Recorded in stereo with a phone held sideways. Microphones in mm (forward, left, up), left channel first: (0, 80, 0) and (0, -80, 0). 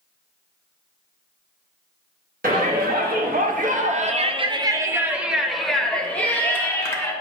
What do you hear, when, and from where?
2.4 s a shout: 65° right (ahead or behind), 1.2 m; by 7.1 s 20° left (ahead or behind), 1.7 m